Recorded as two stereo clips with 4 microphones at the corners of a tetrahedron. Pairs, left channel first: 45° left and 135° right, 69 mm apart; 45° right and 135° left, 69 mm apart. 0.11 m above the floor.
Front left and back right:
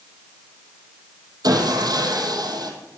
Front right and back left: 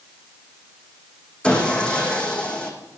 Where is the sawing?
120° right, 3.5 m.